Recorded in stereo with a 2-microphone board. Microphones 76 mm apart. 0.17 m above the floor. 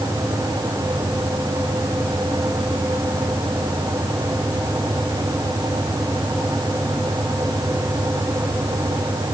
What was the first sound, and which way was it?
Only background noise.